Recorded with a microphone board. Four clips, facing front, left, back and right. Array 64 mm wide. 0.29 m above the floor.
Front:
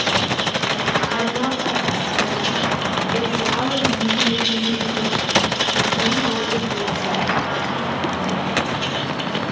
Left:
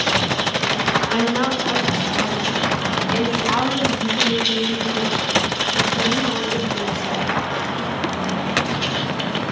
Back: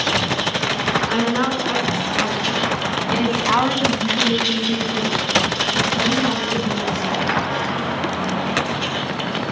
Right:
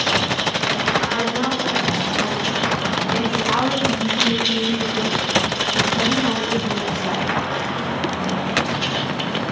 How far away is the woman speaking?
About 3 m.